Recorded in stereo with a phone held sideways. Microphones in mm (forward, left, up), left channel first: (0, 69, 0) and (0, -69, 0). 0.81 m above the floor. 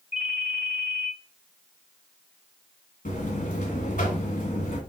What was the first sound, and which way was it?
A ringtone, 50° left (ahead or behind).